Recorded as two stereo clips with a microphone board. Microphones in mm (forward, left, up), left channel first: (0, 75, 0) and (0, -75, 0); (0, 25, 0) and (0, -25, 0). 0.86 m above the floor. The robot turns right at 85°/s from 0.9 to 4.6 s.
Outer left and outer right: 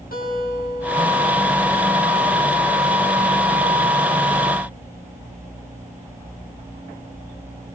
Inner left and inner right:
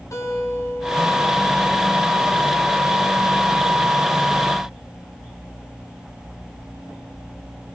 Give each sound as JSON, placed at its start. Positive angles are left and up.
{"t": 0.1, "sound": "a guitar", "azimuth_deg": 80, "distance_m": 7.5}